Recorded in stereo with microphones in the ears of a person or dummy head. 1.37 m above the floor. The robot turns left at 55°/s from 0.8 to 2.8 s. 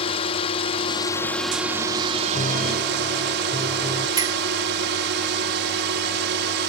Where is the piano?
35° left (ahead or behind); by 4.1 s 10° left (ahead or behind).